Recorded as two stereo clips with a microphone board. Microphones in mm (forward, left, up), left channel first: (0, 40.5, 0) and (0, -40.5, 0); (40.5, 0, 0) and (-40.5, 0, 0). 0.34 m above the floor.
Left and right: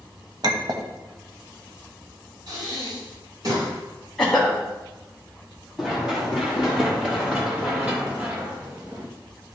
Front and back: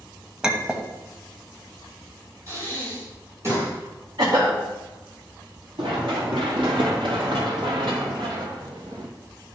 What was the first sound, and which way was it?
A clink, 100° right.